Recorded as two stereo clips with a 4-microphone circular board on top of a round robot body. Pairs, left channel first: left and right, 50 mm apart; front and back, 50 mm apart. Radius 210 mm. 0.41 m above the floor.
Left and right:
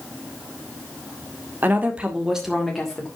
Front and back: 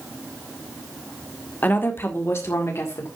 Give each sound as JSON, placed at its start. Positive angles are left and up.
{"t": 1.6, "sound": "a woman speaking", "azimuth_deg": -50, "distance_m": 2.0}